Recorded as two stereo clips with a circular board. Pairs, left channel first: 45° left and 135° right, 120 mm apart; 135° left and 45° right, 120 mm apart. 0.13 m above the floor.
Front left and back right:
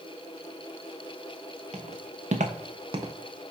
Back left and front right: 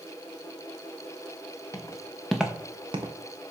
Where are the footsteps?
165° right, 1.5 m; by 3.1 s 75° right, 1.1 m.